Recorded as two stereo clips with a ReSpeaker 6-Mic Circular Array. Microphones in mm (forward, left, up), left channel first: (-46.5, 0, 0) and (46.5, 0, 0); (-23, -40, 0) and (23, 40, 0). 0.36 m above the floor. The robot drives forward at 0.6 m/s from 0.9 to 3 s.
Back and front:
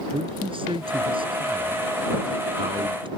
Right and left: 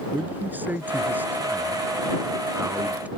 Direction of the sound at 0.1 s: 10° right.